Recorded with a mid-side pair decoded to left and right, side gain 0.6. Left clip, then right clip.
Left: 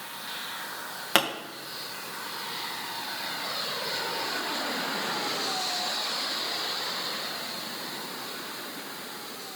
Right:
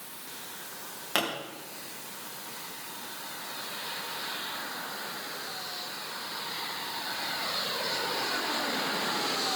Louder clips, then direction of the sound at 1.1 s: Left 5 dB; 40° left.